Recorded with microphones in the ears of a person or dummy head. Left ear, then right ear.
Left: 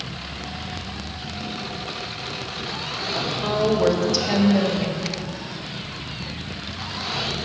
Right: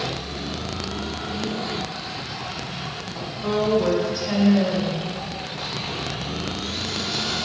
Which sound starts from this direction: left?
A woman speaking, at 3.1 s.